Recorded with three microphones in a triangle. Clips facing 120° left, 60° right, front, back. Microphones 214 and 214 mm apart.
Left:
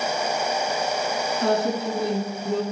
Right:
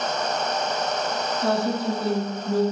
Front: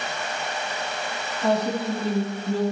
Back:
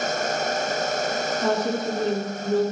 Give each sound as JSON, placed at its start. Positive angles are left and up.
{"t": 1.4, "sound": "a woman speaking", "azimuth_deg": 135, "distance_m": 6.0}